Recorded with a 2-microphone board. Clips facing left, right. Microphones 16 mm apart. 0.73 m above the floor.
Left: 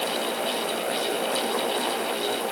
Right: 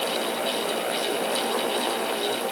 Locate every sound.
Only background noise.